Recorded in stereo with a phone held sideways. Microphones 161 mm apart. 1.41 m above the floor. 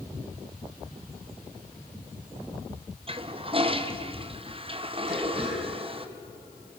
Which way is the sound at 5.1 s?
40° right (ahead or behind).